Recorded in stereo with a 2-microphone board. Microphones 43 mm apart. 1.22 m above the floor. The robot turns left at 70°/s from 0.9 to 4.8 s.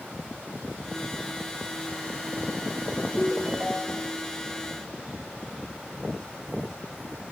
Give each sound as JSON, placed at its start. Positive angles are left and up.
{"t": 3.2, "sound": "a ringtone", "azimuth_deg": 20, "distance_m": 3.5}